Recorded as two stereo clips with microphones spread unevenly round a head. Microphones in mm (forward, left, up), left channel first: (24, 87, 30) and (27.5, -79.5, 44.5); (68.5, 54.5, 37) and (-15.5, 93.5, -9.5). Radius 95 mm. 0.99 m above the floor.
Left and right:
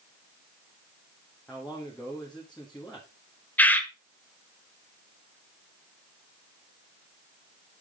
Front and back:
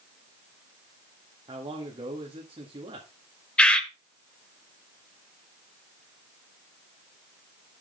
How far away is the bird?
About 0.9 m.